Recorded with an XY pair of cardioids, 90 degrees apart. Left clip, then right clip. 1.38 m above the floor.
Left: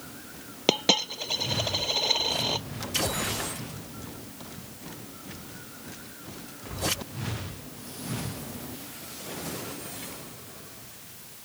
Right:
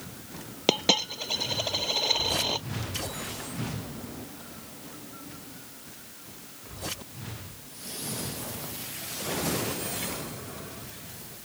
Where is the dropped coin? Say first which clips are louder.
Left 1 dB; 5° left.